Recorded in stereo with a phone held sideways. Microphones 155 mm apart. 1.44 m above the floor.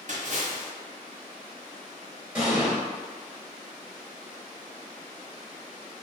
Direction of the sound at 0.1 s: 55° right (ahead or behind).